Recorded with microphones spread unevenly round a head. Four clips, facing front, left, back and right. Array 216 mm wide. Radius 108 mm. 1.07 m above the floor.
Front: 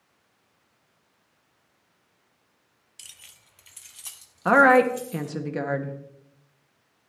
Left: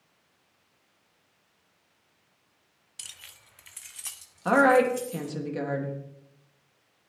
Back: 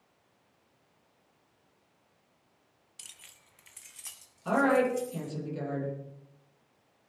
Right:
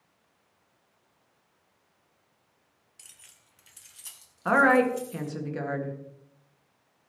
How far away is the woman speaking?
About 1.8 m.